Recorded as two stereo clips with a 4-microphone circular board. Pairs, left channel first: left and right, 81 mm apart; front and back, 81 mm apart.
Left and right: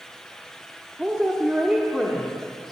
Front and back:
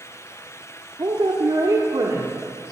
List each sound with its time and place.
1.0 s a woman speaking: 165° right, 1.3 m; by 2.7 s straight behind, 2 m